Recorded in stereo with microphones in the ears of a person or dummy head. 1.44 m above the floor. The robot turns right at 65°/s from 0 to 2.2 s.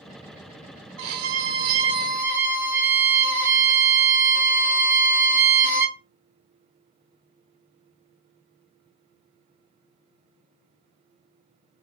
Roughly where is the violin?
Right.